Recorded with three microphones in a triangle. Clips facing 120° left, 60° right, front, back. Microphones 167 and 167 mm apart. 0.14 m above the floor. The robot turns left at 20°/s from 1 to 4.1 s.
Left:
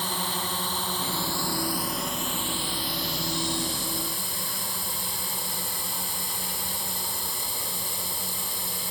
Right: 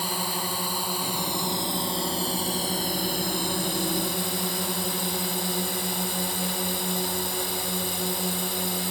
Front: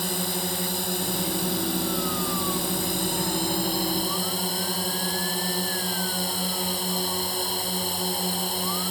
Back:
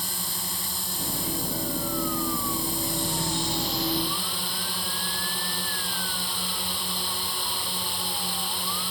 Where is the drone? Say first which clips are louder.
Right 1 dB, front 10 dB; 20° left; by 8.9 s 45° right.